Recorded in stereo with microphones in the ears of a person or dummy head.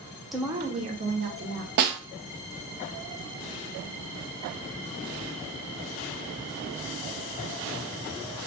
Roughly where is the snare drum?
Right.